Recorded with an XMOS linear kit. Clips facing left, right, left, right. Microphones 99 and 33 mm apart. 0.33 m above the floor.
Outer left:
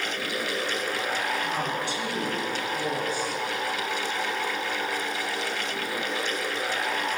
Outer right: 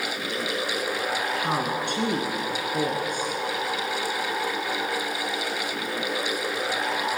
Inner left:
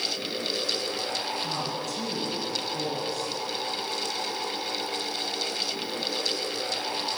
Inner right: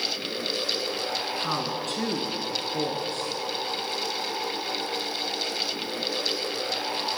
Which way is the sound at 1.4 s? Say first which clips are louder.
Outer right 2 dB, inner right 2 dB; 55° right (ahead or behind).